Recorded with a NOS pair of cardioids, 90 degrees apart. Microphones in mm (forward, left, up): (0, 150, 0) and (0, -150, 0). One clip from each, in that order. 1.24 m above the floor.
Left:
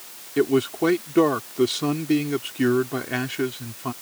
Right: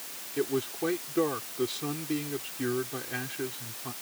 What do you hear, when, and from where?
0.4 s a man speaking: 65° left